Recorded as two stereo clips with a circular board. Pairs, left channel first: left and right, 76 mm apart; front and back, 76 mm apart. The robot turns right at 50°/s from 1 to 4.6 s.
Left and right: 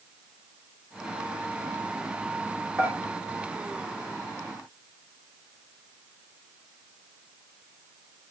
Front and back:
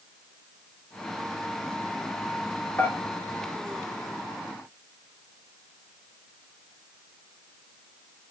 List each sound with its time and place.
2.8 s dishes clattering: 45° right, 1.3 m; by 3.0 s 40° right, 1.3 m